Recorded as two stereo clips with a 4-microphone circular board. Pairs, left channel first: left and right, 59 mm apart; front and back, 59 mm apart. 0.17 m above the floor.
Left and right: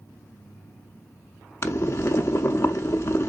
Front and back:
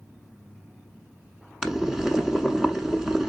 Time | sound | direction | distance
1.6 | boiling | 95° left | 0.9 m